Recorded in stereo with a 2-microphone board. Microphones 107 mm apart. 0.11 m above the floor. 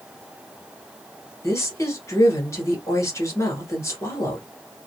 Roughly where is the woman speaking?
Left.